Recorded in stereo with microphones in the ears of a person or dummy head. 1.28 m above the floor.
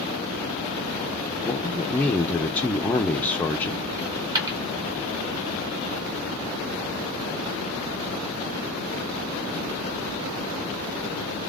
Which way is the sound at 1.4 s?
10° left (ahead or behind).